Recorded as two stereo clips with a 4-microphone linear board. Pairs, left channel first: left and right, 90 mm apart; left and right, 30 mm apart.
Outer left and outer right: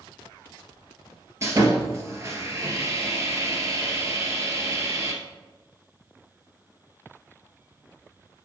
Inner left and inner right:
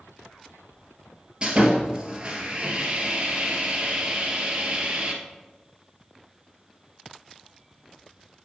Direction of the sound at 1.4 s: 30° right (ahead or behind).